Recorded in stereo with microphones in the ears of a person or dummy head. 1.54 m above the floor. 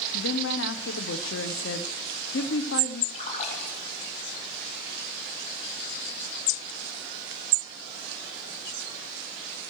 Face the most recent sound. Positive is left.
turn(degrees=40)  # may be behind; listen again after turning